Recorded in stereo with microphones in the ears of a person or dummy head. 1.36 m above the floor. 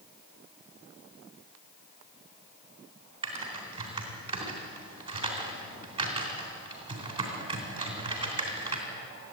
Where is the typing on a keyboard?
30° right (ahead or behind), 3.5 m.